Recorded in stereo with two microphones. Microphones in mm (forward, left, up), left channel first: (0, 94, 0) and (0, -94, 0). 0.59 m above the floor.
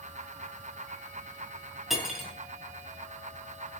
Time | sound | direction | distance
1.9 | cutlery clinking | centre (ahead or behind) | 2.5 m